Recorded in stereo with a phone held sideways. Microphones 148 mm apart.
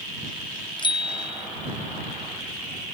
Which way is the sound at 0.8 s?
30° left (ahead or behind).